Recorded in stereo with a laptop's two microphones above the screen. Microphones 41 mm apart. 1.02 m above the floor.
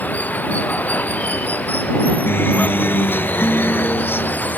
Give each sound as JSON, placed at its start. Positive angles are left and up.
{"t": 0.0, "sound": "running water", "side_deg": 35}
{"t": 2.3, "sound": "a guitar", "side_deg": 60}